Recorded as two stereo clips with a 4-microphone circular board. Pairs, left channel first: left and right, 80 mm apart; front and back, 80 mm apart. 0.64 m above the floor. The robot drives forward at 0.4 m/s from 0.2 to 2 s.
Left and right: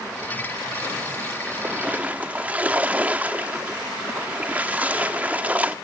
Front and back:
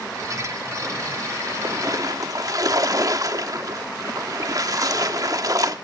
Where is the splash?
150° right, 0.9 m; by 5.8 s 155° right, 1.1 m.